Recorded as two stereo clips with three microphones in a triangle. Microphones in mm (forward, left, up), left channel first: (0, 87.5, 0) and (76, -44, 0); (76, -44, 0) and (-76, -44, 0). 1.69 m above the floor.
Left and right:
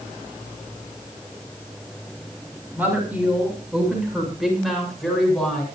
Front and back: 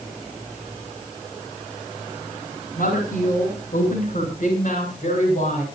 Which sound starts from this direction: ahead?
A woman speaking, at 2.8 s.